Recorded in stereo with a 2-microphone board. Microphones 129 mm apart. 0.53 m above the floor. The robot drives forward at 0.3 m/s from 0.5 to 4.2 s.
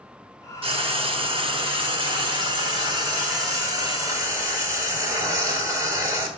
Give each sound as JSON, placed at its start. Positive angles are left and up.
{"t": 0.6, "sound": "frying", "side_deg": -45, "distance_m": 1.0}